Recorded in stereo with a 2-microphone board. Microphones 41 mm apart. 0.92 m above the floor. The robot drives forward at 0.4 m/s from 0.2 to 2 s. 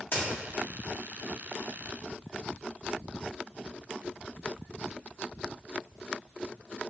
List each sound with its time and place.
0.1 s a crack: 60° left (ahead or behind), 1.7 m